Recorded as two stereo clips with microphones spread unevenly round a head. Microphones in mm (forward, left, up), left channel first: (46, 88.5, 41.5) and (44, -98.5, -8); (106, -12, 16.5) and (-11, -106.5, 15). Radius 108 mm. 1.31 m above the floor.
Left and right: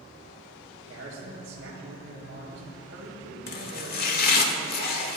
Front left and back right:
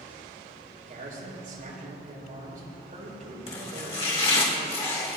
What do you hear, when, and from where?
0.8 s a man speaking: 120° right, 7 m
3.5 s chopping: 100° left, 1.9 m